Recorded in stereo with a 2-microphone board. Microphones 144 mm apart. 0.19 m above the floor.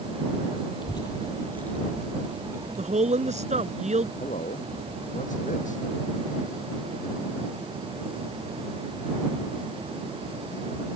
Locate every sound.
0.8 s a child speaking: 35° left (ahead or behind); by 3.8 s 40° right (ahead or behind)
2.8 s a woman speaking: 55° right (ahead or behind)
4.2 s a man speaking: 60° left (ahead or behind)